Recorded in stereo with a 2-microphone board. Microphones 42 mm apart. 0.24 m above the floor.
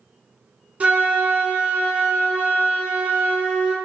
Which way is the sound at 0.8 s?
40° right (ahead or behind).